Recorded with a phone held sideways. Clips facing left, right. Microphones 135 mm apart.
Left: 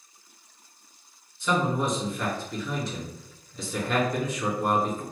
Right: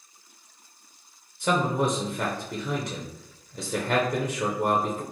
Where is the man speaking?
55° right (ahead or behind), 0.6 m.